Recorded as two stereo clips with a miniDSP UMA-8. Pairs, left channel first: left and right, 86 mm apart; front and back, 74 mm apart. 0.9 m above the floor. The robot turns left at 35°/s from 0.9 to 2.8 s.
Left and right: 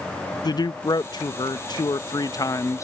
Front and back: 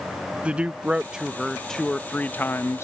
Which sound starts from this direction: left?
A man speaking, at 0.4 s.